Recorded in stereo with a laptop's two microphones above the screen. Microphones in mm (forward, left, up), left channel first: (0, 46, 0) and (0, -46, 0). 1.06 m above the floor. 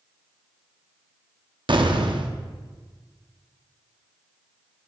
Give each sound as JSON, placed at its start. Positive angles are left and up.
{"t": 1.7, "sound": "an explosion", "side_deg": -60, "distance_m": 0.7}